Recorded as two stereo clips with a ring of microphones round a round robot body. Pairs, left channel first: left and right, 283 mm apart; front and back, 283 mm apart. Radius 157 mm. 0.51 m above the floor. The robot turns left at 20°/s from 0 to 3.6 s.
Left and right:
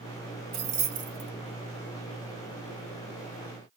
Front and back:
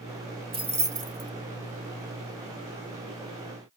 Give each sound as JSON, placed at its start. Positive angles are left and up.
{"t": 0.5, "sound": "keys jangling", "azimuth_deg": -110, "distance_m": 1.5}